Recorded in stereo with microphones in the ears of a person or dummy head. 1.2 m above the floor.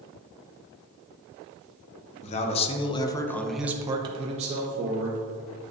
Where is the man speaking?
35° left (ahead or behind), 1.0 m; by 5.2 s 45° right (ahead or behind), 1.2 m.